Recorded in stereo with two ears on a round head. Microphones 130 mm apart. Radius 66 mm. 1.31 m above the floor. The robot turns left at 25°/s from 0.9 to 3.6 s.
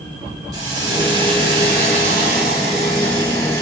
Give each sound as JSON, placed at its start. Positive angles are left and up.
{"t": 0.5, "sound": "a hiss", "azimuth_deg": -25, "distance_m": 5.5}